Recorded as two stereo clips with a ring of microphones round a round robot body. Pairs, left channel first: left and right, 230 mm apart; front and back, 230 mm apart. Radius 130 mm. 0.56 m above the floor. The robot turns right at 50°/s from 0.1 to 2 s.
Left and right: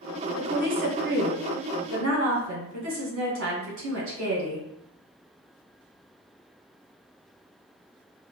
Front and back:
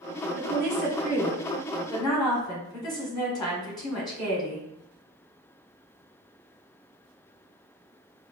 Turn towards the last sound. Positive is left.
turn(degrees=-70)